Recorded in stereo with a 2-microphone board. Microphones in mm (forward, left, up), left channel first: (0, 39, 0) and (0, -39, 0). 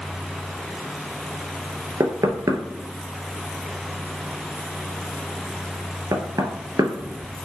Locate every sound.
2.0 s knocking: 45° right (ahead or behind), 1.0 m